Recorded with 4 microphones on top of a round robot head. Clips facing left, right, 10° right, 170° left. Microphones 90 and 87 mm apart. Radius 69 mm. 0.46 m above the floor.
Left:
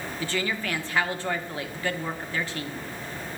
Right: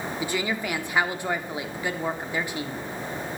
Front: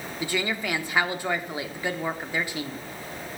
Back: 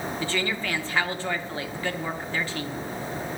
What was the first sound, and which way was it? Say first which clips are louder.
A woman speaking: even, front 3 dB; 55° right.